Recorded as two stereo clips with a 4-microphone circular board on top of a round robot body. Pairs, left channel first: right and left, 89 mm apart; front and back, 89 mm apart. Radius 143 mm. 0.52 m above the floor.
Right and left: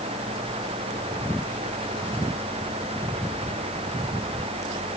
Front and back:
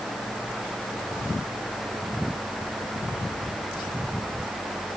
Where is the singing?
I don't hear singing.